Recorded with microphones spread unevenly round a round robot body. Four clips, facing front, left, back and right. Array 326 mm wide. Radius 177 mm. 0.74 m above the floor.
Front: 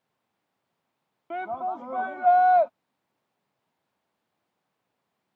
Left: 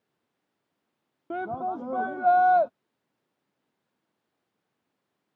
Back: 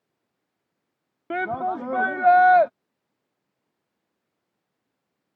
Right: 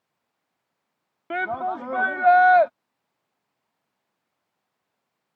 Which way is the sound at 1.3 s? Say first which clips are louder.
Right 4 dB, back 4 dB; 170° left.